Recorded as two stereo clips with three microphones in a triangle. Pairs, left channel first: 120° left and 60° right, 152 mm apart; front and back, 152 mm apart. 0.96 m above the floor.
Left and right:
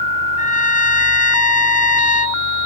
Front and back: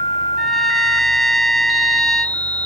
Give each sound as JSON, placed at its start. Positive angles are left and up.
{"t": 0.4, "sound": "a trumpet", "azimuth_deg": 90}